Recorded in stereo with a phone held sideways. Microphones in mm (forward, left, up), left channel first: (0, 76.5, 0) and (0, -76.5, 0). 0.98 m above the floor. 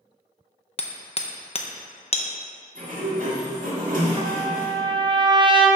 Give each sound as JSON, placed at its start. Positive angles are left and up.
{"t": 0.8, "sound": "hammering", "side_deg": 40, "distance_m": 0.5}
{"t": 2.8, "sound": "a sliding door", "side_deg": -65, "distance_m": 1.6}
{"t": 4.2, "sound": "a trumpet", "side_deg": -30, "distance_m": 0.6}